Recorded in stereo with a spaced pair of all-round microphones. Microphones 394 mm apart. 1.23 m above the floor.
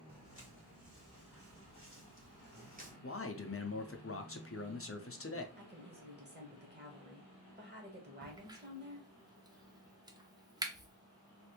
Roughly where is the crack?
Centre.